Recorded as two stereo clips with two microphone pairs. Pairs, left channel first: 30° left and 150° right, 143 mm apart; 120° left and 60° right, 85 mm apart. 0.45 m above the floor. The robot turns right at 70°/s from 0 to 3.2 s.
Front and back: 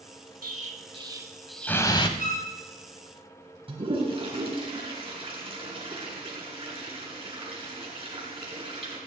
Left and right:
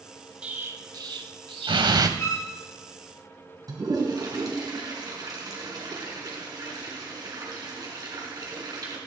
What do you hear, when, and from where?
0.4 s an explosion: 135° right, 0.7 m; by 2.1 s 20° right, 0.7 m
2.2 s a violin: 60° left, 3 m; by 2.5 s 80° left, 3 m
3.7 s a toilet flushing: 100° right, 3.5 m